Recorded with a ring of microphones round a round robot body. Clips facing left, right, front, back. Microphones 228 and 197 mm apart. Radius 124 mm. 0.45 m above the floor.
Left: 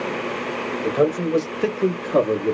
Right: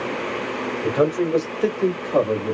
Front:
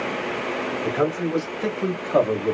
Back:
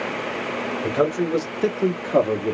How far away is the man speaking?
About 1.2 m.